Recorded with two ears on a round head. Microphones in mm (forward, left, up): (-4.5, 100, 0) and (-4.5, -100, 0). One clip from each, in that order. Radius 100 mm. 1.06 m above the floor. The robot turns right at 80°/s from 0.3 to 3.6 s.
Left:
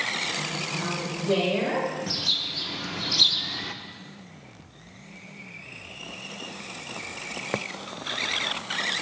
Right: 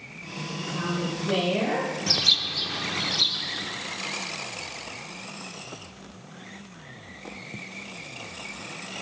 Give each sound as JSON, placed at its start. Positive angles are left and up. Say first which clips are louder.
{"t": 0.6, "sound": "a woman speaking", "louder": "left 1 dB", "azimuth_deg": -40, "distance_m": 4.5}
{"t": 2.1, "sound": "a bird", "louder": "right 7 dB", "azimuth_deg": -55, "distance_m": 0.7}